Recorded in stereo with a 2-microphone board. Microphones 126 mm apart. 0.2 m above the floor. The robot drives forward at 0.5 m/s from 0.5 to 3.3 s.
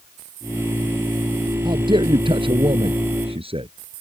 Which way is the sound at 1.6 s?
40° right (ahead or behind).